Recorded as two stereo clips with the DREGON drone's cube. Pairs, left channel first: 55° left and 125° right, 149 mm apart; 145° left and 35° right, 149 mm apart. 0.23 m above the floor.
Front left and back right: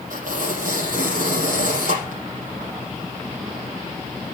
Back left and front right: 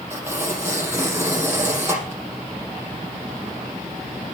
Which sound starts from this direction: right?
Tearing paper, at 0.1 s.